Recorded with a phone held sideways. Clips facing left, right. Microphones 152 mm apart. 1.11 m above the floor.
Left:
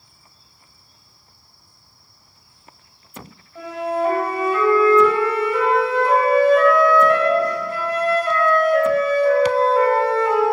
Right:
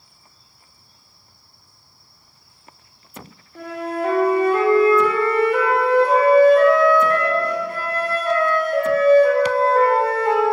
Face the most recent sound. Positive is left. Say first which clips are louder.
# left 3 dB
turn(degrees=-55)  # may be behind; listen again after turning